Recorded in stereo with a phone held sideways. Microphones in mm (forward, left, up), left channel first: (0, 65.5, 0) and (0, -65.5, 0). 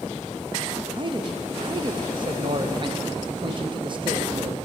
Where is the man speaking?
35° right (ahead or behind), 0.6 m.